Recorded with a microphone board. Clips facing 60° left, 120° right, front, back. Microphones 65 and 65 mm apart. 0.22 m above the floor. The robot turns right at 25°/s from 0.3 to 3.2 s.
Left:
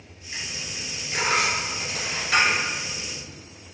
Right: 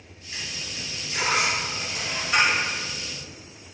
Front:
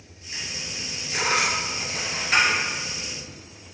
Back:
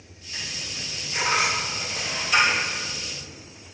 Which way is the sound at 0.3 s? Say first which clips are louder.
Left 1 dB, front 1 dB; 15° right.